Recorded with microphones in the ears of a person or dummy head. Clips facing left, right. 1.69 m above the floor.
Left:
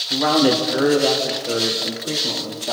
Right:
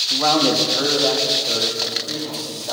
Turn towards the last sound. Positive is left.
turn(degrees=40)  # may be behind; listen again after turning